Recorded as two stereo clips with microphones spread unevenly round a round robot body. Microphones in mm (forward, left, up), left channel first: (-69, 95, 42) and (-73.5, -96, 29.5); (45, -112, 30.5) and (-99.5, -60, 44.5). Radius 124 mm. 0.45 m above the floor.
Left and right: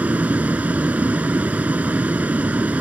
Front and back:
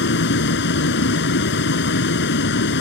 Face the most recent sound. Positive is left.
turn(degrees=-5)